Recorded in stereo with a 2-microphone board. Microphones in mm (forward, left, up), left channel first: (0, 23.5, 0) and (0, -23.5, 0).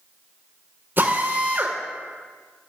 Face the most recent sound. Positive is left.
turn(degrees=-45)  # may be behind; listen again after turning